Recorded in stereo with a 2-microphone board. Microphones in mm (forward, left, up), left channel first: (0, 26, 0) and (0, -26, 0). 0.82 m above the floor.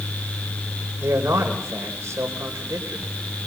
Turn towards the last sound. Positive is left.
turn(degrees=-75)  # may be behind; listen again after turning